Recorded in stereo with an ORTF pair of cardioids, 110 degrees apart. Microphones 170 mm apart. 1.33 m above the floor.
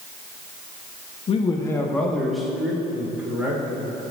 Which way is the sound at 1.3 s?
35° left.